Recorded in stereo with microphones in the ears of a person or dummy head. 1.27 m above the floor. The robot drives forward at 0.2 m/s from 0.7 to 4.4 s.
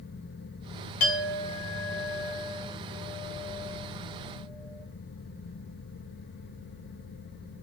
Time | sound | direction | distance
1.0 | a clink | 60° left (ahead or behind) | 0.6 m